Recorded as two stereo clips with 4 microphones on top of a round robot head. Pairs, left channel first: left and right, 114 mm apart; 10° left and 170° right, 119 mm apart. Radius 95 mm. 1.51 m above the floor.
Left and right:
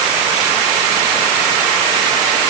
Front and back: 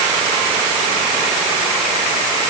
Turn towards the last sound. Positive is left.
No sound to turn to.